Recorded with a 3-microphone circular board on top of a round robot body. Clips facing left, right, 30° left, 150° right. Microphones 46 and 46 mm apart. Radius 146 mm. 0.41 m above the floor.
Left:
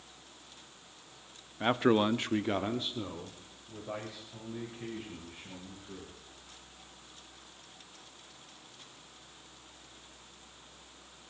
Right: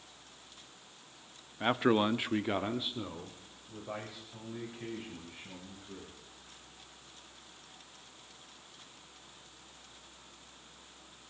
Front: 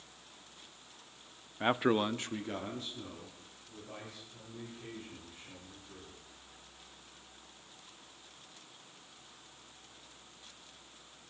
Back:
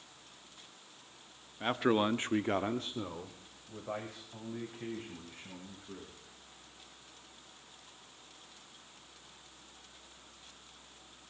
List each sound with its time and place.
1.6 s a man speaking: 5° right, 0.8 m; by 6.1 s 175° right, 5 m